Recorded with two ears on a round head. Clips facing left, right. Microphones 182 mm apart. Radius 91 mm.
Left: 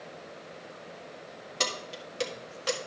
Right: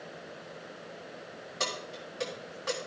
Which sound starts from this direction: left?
Keys jangling, at 1.6 s.